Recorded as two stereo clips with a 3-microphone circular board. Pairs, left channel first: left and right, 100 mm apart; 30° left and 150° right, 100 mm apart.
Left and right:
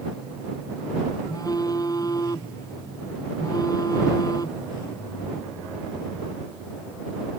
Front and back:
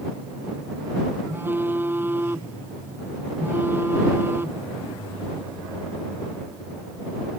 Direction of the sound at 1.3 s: 140° left.